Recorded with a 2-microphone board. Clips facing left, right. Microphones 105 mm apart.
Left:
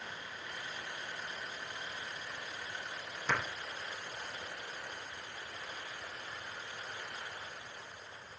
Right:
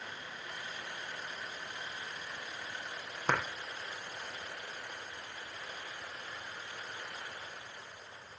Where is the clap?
55° right (ahead or behind), 6.5 m.